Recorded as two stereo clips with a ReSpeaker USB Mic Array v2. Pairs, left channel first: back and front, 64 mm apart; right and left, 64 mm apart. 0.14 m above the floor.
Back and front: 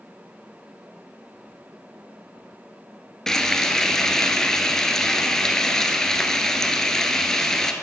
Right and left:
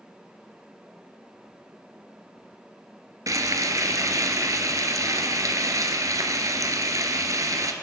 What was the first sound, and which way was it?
Frying, 100° left.